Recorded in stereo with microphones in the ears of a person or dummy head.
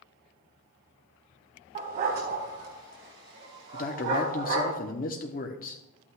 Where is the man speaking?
35° left (ahead or behind), 0.9 m.